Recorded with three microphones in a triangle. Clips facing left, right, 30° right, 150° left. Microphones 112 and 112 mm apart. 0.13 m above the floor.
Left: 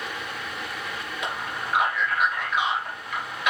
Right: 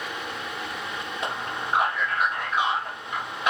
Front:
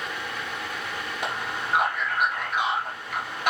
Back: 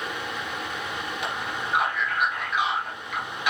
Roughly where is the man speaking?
Ahead right.